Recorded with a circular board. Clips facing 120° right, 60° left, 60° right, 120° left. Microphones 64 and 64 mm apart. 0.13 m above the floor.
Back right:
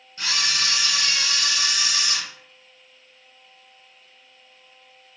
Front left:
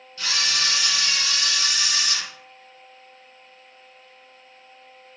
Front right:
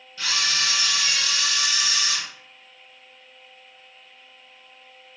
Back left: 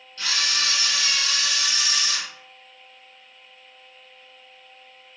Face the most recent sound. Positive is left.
turn(degrees=-125)